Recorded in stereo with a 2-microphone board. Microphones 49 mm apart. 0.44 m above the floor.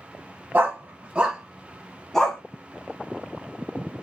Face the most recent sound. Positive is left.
turn(degrees=10)  # may be behind; listen again after turning